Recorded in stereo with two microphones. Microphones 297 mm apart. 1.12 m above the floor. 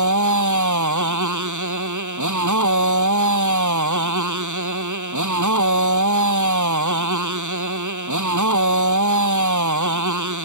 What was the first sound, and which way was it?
A motorcycle, 80° right.